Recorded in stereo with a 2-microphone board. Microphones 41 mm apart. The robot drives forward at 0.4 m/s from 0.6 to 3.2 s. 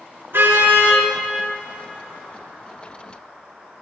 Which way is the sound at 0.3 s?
60° right (ahead or behind).